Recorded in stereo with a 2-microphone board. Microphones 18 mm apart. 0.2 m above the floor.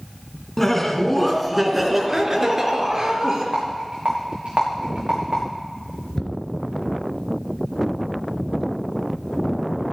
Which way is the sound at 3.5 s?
85° right.